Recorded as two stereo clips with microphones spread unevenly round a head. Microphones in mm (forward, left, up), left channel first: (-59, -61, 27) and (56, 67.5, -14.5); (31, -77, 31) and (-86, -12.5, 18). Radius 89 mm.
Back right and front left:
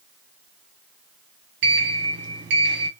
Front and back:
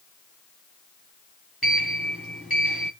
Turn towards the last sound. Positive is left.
turn(degrees=65)